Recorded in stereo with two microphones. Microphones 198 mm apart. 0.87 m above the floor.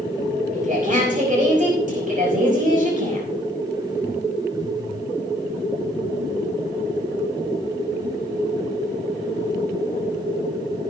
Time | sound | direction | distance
0.5 | a woman speaking | 40° right (ahead or behind) | 5.5 m